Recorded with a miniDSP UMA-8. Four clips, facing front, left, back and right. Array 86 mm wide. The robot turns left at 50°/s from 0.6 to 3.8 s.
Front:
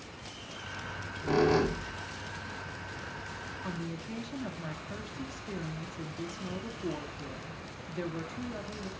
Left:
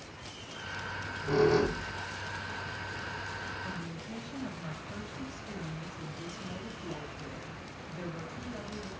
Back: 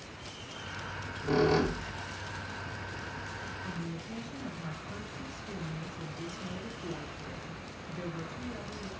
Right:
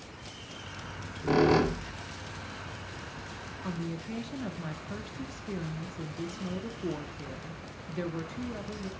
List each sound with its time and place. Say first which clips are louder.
0.8 s a squeak: left 4 dB, even; 50° right, 0.7 m; by 3.2 s 170° right, 0.7 m
3.6 s a woman speaking: right 4 dB, front 4 dB; 55° right, 0.5 m; by 8.9 s 60° right, 0.5 m